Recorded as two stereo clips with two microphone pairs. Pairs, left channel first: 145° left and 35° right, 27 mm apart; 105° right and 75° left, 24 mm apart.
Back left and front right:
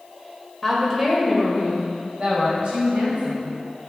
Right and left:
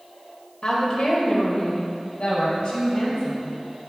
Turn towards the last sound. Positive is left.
turn(degrees=-70)